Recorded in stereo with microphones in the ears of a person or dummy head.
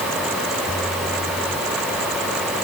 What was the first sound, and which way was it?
Only background noise.